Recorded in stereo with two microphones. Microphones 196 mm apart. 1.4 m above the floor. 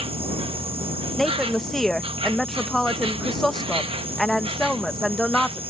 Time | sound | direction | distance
0.0 | an insect | 30° right (ahead or behind) | ?
1.2 | a woman speaking | centre (ahead or behind) | ?